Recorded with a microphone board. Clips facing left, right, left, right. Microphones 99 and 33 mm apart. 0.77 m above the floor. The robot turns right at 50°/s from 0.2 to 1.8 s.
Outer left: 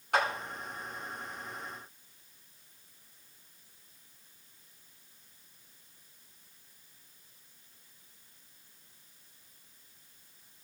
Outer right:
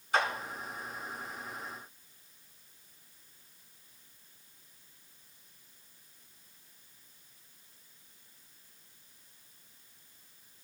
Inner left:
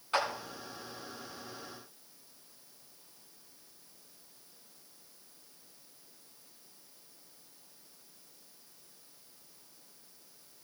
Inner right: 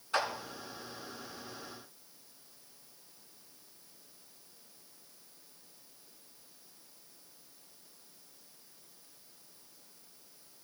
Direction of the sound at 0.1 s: 55° left (ahead or behind).